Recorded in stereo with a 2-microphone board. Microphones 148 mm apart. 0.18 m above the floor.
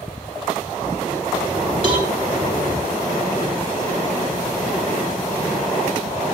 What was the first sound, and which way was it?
A cowbell, 35° right (ahead or behind).